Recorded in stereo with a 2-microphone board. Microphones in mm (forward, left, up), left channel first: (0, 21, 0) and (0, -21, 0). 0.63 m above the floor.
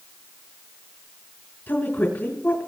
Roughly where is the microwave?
No microwave in this recording.